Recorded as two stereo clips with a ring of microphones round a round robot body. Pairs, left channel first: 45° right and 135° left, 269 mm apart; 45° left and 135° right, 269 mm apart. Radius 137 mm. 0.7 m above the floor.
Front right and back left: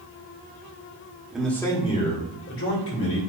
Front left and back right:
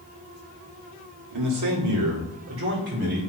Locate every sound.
1.3 s a man speaking: 140° right, 1.9 m; by 3.3 s 80° right, 3 m